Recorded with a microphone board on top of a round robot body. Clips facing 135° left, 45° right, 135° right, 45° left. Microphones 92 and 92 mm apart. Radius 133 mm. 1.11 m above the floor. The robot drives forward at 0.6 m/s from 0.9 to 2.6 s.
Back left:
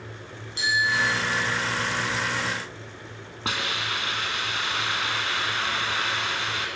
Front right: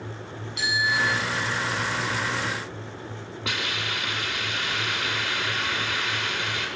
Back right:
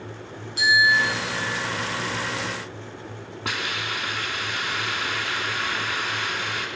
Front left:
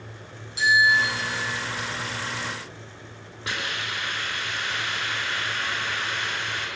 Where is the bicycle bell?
170° right, 8 m.